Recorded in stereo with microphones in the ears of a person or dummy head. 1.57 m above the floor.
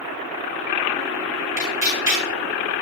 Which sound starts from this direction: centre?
Tearing paper, at 1.6 s.